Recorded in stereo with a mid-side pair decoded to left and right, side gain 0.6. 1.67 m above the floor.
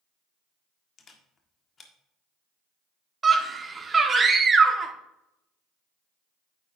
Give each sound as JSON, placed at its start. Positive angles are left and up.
{"t": 1.0, "sound": "a camera shutter", "azimuth_deg": 35, "distance_m": 1.6}
{"t": 3.2, "sound": "a scream", "azimuth_deg": -25, "distance_m": 1.5}